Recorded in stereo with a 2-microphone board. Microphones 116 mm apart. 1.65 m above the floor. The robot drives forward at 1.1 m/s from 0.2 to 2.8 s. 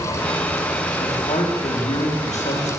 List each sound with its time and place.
1.0 s a man speaking: 80° left, 5 m